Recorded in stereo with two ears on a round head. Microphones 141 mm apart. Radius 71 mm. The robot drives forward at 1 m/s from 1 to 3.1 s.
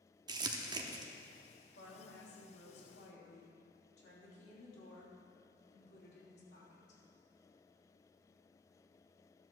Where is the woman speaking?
70° left (ahead or behind), 3 m; by 7.0 s 80° left, 3 m.